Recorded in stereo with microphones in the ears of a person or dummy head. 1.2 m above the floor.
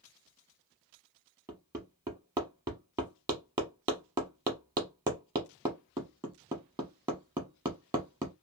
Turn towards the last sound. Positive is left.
turn(degrees=-25)  # may be behind; listen again after turning